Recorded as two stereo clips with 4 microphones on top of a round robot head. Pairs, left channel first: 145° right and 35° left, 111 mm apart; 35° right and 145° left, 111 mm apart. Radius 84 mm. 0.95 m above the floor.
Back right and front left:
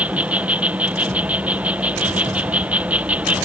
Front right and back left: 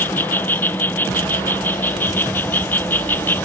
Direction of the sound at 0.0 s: 15° right.